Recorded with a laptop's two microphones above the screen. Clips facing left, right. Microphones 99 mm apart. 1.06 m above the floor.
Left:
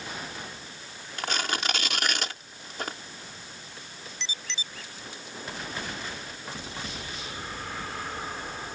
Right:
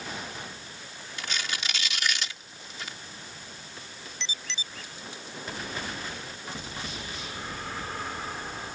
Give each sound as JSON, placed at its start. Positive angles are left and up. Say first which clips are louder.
{"t": 1.2, "sound": "tearing paper", "louder": "left 5 dB", "side_deg": 55}